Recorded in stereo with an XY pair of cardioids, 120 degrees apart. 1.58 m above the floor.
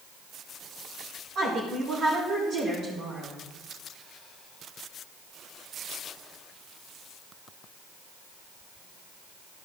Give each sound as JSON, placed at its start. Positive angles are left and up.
{"t": 1.4, "sound": "a woman speaking", "azimuth_deg": -60, "distance_m": 4.0}